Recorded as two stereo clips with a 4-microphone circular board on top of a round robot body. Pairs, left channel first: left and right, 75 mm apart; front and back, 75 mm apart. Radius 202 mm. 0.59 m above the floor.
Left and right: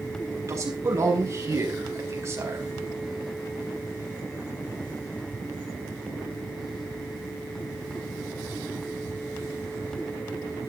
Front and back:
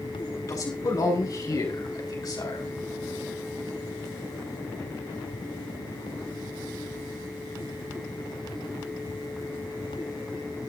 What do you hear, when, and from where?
0.5 s a man speaking: 40° right, 6.5 m; by 2.7 s 35° right, 5 m